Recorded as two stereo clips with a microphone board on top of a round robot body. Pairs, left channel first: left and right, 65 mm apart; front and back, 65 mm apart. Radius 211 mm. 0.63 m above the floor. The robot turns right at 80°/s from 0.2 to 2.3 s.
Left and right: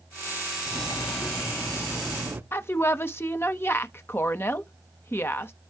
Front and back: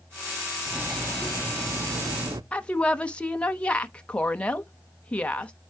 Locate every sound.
0.7 s cutlery clinking: 80° left, 0.8 m; by 2.4 s 150° right, 0.8 m
2.5 s a woman speaking: 60° left, 1.0 m